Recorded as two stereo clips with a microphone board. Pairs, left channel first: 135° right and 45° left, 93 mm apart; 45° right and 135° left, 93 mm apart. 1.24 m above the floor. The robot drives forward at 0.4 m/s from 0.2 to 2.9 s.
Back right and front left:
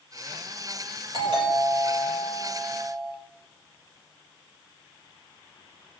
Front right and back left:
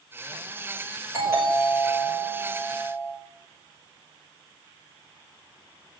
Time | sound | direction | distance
1.1 | a doorbell | 70° left | 8 m